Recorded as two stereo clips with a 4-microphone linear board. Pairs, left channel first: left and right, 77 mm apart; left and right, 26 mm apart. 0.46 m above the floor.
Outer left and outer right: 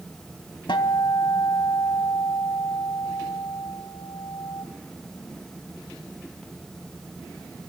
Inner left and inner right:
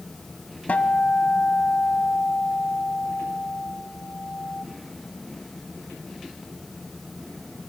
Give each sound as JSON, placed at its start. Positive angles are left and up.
{"t": 0.7, "sound": "a guitar", "side_deg": 80, "distance_m": 1.5}